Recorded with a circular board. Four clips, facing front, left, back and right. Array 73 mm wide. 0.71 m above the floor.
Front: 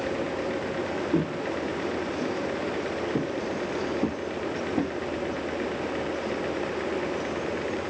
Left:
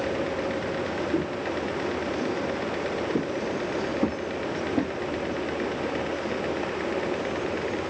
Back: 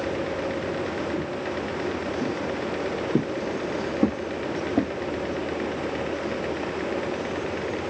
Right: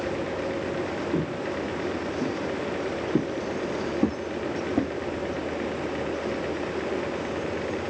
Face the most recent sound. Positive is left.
turn(degrees=-160)